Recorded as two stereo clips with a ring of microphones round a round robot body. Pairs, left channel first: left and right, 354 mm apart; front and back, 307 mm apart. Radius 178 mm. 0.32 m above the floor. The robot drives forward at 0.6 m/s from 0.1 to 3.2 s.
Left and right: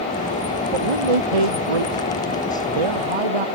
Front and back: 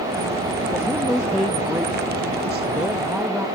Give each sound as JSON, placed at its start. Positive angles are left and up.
{"t": 0.7, "sound": "a man speaking", "azimuth_deg": -90}